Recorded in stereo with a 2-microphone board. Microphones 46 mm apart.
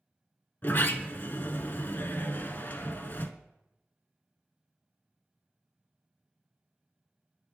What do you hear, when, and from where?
0.6 s a sliding door: 45° left (ahead or behind), 0.5 m